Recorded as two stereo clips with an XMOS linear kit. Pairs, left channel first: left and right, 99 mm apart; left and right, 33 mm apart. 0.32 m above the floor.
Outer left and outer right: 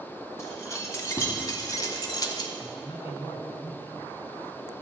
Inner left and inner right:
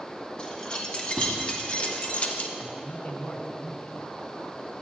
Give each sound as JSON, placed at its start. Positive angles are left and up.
{"t": 0.4, "sound": "keys jangling", "side_deg": 30, "distance_m": 2.0}
{"t": 2.6, "sound": "a man speaking", "side_deg": 70, "distance_m": 3.0}